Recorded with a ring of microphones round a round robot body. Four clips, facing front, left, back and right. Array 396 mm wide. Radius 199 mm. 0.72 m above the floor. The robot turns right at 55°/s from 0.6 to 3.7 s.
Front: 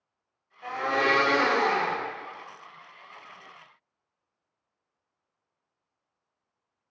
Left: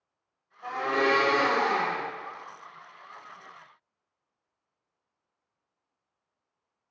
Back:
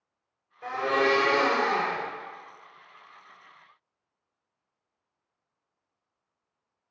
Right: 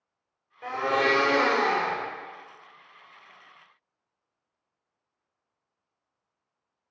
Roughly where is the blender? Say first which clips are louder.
Right 1 dB, back 1 dB; right.